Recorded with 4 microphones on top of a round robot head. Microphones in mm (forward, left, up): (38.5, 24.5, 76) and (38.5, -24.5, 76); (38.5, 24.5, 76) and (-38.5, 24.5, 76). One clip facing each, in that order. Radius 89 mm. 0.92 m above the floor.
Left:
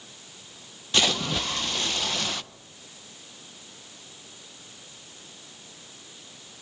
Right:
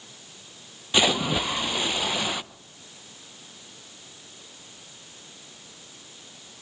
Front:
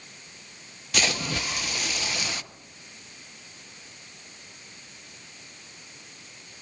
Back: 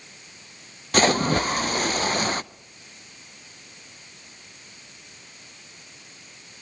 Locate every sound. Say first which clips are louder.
0.9 s a splash: right 3 dB, back 9 dB; 160° right, 0.5 m